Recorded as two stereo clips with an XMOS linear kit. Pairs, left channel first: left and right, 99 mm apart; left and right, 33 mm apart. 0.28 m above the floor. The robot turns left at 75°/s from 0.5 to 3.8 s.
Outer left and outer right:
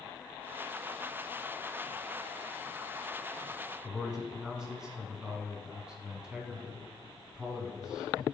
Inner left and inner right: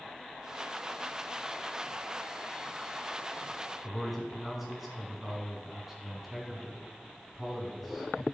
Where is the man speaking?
10° right (ahead or behind), 2 m.